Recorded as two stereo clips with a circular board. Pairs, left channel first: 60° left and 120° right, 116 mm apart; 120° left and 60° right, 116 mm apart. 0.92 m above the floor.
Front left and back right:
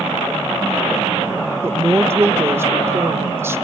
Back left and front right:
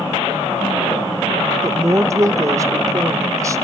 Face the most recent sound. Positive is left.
turn(degrees=-75)